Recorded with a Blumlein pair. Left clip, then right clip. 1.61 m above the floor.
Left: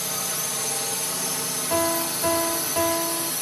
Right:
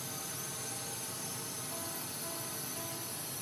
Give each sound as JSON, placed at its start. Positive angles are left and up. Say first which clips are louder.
{"t": 0.0, "sound": "a drone", "louder": "left 14 dB", "azimuth_deg": 55}
{"t": 1.7, "sound": "a piano", "louder": "left 19 dB", "azimuth_deg": 50}